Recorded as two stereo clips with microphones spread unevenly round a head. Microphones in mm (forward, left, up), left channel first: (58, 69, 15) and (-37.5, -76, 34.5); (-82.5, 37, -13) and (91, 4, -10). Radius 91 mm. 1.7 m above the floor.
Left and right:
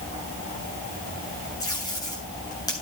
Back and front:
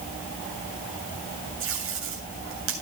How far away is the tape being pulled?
About 8 m.